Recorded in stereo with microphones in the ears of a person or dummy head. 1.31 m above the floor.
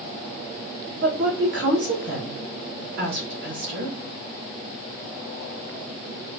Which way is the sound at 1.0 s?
60° right (ahead or behind).